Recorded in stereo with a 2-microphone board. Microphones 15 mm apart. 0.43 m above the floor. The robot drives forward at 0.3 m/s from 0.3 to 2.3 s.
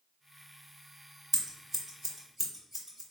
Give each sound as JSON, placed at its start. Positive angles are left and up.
{"t": 1.3, "sound": "scissors", "side_deg": -15, "distance_m": 0.5}